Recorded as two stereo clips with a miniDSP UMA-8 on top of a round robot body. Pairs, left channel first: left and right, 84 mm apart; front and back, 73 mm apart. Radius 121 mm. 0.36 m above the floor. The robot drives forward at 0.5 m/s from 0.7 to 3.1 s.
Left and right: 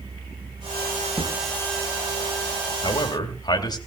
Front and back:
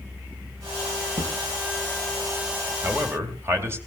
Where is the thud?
Straight behind, 3.5 m.